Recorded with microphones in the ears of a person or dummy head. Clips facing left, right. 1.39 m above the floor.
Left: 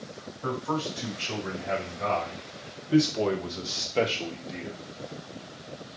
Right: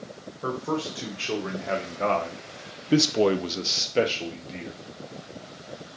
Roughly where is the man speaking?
Right.